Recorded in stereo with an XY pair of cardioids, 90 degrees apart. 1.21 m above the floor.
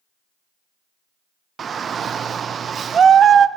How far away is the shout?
About 0.6 m.